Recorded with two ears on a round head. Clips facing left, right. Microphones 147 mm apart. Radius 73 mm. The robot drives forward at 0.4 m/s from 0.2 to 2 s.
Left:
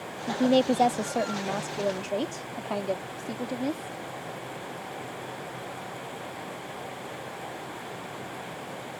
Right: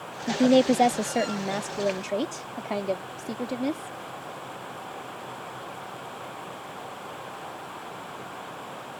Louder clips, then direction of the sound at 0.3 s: Right 3 dB; 20° right (ahead or behind).